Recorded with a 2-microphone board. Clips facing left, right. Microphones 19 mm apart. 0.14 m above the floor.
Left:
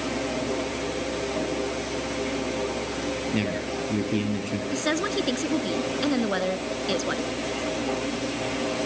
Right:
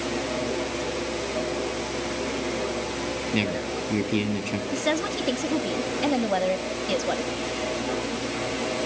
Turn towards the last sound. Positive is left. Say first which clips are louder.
# left 1 dB
turn(degrees=20)  # may be behind; listen again after turning